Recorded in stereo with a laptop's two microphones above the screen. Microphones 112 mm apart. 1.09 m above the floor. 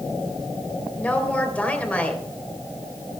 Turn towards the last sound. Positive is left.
turn(degrees=15)  # may be behind; listen again after turning